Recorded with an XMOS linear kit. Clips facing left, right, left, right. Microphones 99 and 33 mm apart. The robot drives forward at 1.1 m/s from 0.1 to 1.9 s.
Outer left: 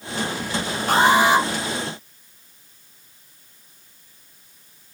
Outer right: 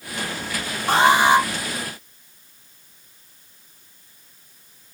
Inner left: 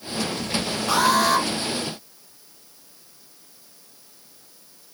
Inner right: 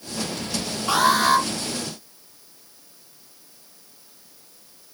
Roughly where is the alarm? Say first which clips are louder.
Outer right 1 dB, inner right 1 dB; right.